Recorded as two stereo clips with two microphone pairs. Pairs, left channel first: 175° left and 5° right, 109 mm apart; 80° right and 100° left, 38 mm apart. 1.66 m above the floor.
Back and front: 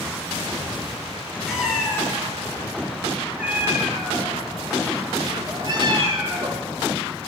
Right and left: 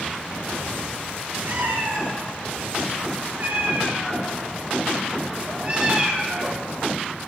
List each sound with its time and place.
1.5 s a cat meowing: 80° left, 7.5 m; by 6.6 s 25° left, 4 m